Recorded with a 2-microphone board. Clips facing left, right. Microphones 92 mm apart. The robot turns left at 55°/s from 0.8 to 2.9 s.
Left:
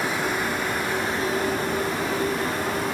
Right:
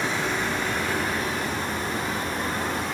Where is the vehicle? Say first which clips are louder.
Left 1 dB; 10° left (ahead or behind); by 3.0 s 55° left (ahead or behind).